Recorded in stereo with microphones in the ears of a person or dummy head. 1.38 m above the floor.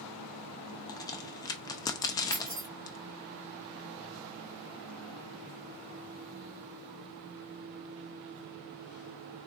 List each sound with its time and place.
0.9 s a crack: 20° left (ahead or behind), 0.6 m
2.3 s keys jangling: 45° right (ahead or behind), 0.8 m